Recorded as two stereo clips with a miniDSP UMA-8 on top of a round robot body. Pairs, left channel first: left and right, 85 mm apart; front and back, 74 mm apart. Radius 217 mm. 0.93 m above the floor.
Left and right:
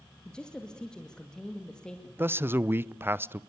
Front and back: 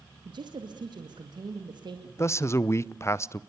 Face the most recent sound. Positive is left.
turn(degrees=-35)